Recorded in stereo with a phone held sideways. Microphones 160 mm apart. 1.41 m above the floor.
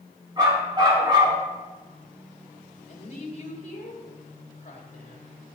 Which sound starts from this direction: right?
A dog barking, at 0.4 s.